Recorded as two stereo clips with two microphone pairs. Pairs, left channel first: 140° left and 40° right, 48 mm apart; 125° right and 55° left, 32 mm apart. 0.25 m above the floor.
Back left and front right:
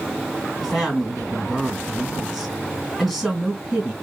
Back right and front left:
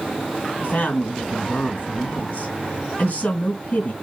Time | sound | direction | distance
0.6 | a woman speaking | 115° right | 1.6 m